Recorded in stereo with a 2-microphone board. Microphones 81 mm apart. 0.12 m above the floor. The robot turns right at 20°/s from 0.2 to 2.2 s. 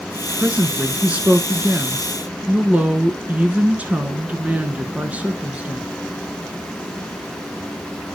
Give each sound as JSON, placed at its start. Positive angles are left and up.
{"t": 0.4, "sound": "a woman speaking", "side_deg": -15, "distance_m": 1.1}